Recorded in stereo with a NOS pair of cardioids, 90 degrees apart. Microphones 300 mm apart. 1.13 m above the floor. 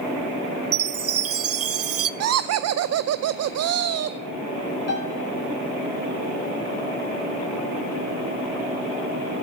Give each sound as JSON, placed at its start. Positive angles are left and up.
{"t": 0.7, "sound": "a chime", "azimuth_deg": -50, "distance_m": 0.8}
{"t": 2.2, "sound": "laughter", "azimuth_deg": -55, "distance_m": 0.5}
{"t": 4.9, "sound": "a piano", "azimuth_deg": 50, "distance_m": 3.0}